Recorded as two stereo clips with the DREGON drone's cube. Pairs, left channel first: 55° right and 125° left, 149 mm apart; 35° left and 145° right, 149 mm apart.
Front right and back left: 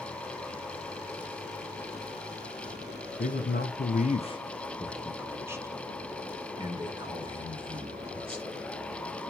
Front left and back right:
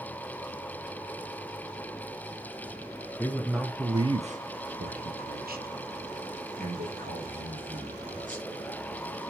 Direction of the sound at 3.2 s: 45° right.